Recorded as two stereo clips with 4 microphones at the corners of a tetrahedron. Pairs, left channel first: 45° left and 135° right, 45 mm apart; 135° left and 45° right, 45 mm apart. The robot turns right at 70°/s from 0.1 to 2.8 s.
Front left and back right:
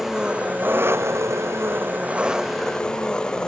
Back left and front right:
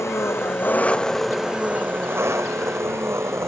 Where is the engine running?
145° left; by 3.5 s 30° right.